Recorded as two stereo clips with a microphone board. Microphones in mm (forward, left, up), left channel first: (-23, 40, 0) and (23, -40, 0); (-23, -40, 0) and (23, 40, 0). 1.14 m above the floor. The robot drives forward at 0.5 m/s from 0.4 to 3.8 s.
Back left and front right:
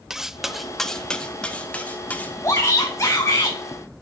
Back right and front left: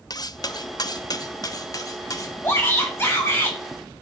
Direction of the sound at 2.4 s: 175° left.